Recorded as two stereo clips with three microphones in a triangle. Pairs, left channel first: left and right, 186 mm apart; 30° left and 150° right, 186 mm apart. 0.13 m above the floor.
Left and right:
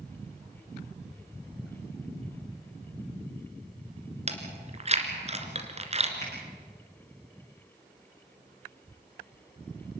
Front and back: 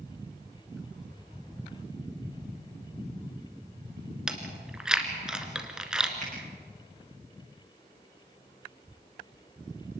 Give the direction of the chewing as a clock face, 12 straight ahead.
2 o'clock.